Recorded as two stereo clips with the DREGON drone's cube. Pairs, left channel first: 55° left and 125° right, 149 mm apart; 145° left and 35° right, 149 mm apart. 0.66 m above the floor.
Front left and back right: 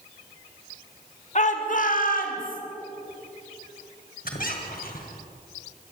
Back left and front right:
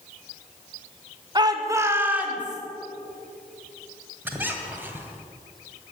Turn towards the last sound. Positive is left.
turn(degrees=40)